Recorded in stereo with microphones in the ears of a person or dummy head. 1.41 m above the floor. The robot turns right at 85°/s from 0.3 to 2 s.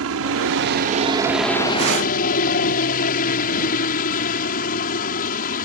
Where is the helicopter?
95° right; by 5.7 s 50° left.